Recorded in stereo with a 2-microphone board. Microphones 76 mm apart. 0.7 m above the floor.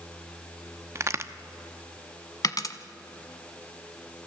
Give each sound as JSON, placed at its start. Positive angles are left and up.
{"t": 0.9, "sound": "a crack", "side_deg": -40, "distance_m": 0.8}
{"t": 2.4, "sound": "a dropped coin", "side_deg": 55, "distance_m": 0.9}